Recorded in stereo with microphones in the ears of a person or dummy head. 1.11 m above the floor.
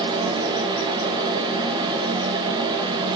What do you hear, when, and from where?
0.0 s a fan: 25° right (ahead or behind), 2.5 m